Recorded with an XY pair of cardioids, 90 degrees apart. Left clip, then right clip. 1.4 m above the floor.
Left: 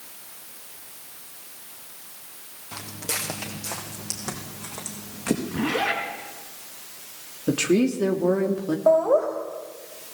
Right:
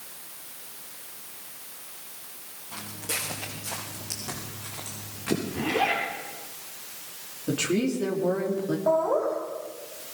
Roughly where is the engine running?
I don't hear an engine running.